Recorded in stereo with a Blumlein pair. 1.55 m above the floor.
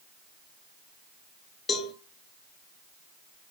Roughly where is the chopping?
No chopping in this recording.